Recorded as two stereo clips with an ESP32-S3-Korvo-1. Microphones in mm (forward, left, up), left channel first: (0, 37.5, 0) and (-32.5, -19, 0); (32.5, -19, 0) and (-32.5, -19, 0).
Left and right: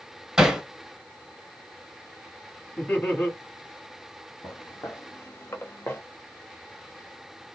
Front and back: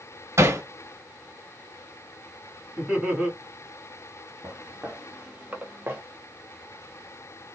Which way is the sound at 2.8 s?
110° left.